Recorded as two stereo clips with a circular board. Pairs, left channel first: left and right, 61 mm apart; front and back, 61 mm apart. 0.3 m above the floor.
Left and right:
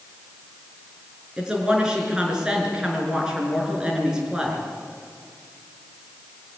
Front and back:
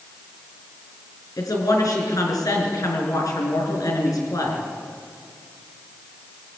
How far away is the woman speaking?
About 5 m.